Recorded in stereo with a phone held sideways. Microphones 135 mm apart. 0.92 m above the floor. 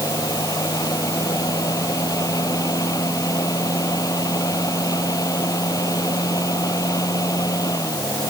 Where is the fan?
25° left (ahead or behind).